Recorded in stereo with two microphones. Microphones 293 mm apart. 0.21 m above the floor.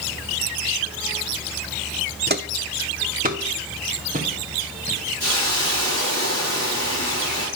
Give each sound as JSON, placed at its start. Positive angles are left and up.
{"t": 2.3, "sound": "footsteps", "side_deg": -35, "distance_m": 0.5}
{"t": 5.2, "sound": "a hiss", "side_deg": 50, "distance_m": 4.5}